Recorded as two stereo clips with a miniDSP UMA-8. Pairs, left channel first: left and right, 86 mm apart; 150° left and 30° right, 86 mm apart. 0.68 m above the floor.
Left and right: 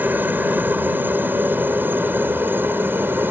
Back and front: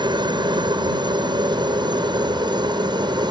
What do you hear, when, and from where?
0.0 s a helicopter: 25° right; by 3.3 s 30° right